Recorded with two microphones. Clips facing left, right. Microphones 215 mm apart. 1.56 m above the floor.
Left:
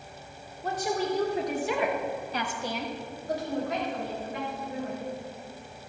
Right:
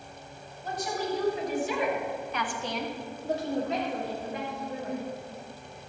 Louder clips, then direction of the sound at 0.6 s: Left 3 dB; 80° left.